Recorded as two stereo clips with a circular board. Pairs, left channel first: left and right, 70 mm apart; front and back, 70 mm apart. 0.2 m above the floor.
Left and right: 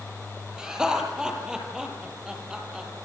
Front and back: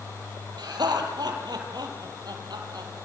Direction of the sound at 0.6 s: 170° right.